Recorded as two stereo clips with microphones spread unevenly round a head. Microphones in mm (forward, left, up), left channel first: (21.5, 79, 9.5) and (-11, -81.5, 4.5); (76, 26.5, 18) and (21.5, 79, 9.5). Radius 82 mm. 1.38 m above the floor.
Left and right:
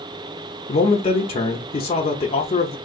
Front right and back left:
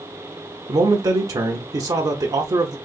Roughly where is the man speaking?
Behind left.